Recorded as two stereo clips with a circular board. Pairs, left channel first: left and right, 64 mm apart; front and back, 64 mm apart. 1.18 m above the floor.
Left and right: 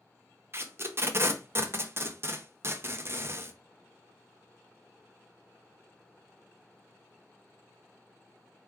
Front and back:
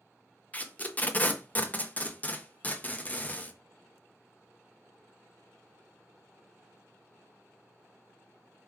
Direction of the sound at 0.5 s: 55° right.